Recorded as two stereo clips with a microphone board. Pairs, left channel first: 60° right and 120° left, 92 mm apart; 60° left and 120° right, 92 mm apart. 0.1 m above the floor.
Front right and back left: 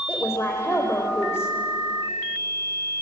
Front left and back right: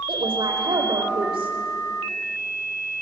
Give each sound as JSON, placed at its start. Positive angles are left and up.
{"t": 0.1, "sound": "a woman speaking", "azimuth_deg": -120, "distance_m": 5.5}